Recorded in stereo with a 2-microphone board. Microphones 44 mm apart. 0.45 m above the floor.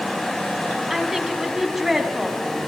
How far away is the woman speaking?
About 4 m.